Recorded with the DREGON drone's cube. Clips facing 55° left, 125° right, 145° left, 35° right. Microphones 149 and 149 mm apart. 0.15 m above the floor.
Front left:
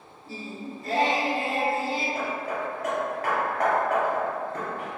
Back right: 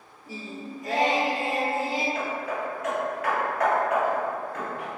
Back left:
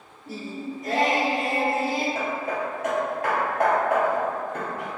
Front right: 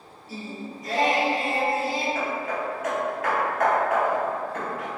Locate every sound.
0.3 s singing: 160° left, 0.6 m
2.1 s hammering: 100° left, 1.1 m